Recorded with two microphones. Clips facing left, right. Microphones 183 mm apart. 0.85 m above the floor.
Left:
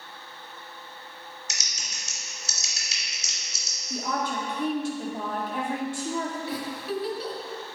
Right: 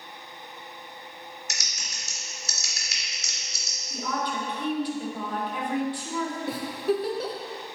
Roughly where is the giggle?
Right.